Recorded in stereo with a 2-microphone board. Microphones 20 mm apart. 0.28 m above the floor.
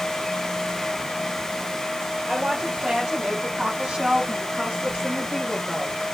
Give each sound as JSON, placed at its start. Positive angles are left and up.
{"t": 2.3, "sound": "a woman speaking", "side_deg": -45, "distance_m": 6.5}